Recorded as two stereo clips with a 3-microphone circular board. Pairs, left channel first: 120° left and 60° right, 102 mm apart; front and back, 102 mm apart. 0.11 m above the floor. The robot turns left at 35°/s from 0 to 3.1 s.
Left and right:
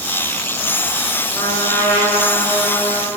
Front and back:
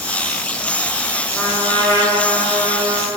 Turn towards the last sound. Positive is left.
turn(degrees=15)